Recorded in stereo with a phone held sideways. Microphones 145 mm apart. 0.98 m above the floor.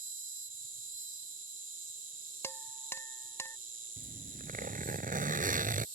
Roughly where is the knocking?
I don't hear knocking.